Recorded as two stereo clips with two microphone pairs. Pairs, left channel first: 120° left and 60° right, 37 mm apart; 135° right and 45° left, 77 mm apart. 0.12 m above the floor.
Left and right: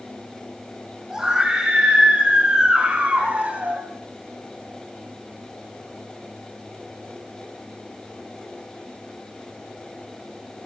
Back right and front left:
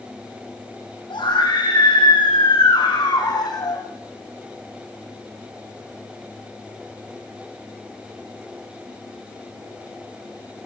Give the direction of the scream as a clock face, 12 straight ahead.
4 o'clock.